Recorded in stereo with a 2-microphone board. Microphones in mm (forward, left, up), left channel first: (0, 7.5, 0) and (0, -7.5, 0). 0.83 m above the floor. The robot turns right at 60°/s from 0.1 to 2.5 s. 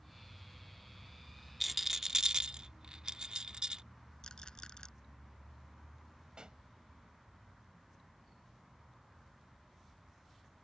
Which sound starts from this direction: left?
A rattle, at 4.2 s.